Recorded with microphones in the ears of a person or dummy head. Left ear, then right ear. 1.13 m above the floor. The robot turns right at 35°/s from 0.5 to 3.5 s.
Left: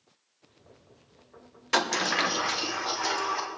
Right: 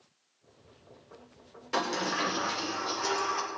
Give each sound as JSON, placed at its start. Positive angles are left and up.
{"t": 1.7, "sound": "a sliding door", "azimuth_deg": 110, "distance_m": 0.8}